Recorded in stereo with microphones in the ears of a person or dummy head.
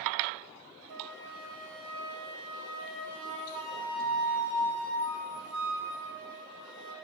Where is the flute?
70° right (ahead or behind), 1.4 m.